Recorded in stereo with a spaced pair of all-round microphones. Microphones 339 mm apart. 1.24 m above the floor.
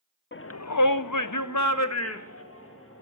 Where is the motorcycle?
I don't hear a motorcycle.